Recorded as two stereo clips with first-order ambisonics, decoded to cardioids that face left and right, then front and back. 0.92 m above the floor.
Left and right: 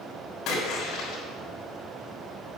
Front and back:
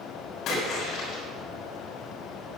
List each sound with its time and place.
0.5 s a splash: 50° left, 6.5 m